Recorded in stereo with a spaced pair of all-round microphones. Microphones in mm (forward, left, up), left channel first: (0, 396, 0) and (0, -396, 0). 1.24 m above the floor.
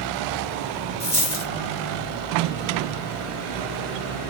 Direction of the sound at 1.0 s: 30° left (ahead or behind).